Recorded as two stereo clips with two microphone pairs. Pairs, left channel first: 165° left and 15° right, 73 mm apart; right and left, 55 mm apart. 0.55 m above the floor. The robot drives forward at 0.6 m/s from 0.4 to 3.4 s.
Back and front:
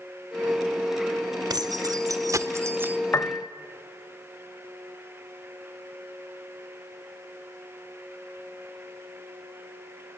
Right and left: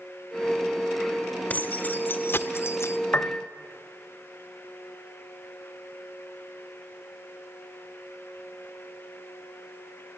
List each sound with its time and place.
1.5 s keys jangling: 30° right, 1.3 m; by 3.0 s 80° right, 0.8 m
3.1 s a piano: 145° right, 0.5 m; by 3.5 s 150° right, 0.7 m